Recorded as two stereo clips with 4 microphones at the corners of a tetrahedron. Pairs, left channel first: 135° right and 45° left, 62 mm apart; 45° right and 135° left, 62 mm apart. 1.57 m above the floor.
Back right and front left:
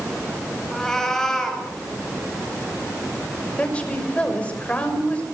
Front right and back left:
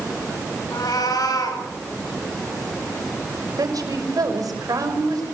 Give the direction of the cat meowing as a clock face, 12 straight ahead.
2 o'clock.